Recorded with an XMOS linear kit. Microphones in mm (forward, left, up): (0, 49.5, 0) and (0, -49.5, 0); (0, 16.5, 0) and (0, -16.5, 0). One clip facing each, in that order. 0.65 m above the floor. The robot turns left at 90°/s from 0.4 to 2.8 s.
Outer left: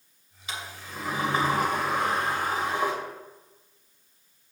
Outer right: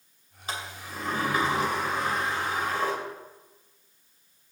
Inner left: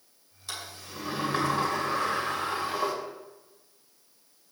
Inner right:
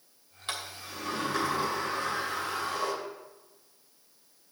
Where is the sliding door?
135° right, 2.5 m; by 2.9 s 15° left, 2.5 m.